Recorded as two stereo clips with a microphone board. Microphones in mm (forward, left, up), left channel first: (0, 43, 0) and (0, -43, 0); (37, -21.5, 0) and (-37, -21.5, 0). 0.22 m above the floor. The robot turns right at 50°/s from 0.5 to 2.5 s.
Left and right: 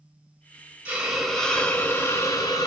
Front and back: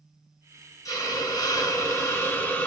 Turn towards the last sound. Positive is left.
turn(degrees=60)